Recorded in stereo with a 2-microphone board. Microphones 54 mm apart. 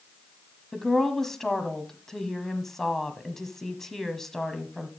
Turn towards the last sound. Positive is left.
turn(degrees=10)  # may be behind; listen again after turning